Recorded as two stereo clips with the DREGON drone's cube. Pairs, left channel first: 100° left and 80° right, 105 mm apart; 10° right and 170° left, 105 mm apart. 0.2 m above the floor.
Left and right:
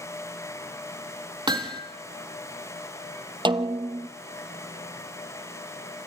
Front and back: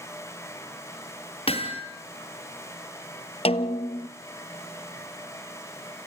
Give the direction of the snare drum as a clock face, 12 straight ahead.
1 o'clock.